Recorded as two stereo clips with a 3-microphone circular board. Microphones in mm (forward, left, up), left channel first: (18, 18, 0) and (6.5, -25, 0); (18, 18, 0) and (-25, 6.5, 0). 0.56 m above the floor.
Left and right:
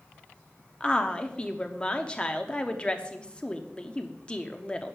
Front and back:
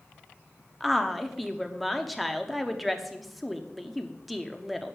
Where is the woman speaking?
105° left, 0.8 m.